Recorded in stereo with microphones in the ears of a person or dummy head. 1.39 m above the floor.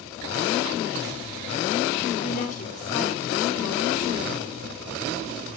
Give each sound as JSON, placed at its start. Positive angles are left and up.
{"t": 2.2, "sound": "a woman speaking", "side_deg": 45, "distance_m": 3.0}